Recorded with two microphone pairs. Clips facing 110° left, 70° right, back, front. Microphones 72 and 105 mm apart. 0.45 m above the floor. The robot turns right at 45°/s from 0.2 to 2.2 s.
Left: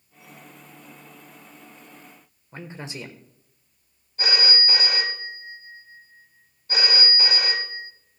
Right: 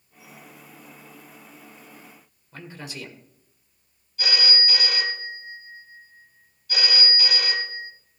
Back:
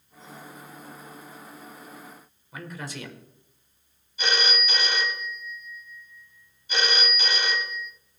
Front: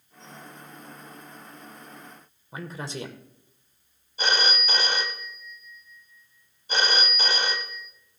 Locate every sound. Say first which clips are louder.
2.5 s a man speaking: left 2 dB, front 2 dB; 55° left, 1.6 m
4.2 s a phone ringing: left 1 dB, front 1 dB; 55° left, 1.4 m